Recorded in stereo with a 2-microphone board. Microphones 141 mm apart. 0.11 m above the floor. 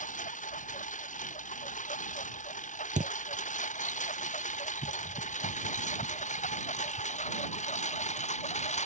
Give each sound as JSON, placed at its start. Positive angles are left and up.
{"t": 0.0, "sound": "a lawn mower", "side_deg": 65}
{"t": 3.0, "sound": "a thud", "side_deg": -60}